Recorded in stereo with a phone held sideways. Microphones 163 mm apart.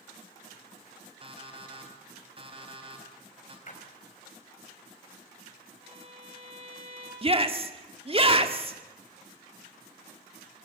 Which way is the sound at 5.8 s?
35° right (ahead or behind).